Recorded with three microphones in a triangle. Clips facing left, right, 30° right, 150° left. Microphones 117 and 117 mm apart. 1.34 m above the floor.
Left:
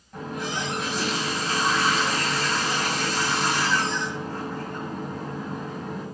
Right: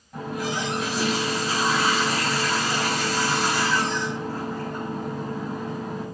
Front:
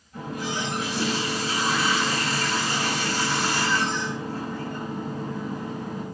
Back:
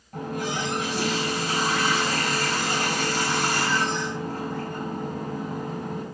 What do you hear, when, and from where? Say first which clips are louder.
0.1 s a running tap: right 2 dB, back 2 dB; 175° right, 5 m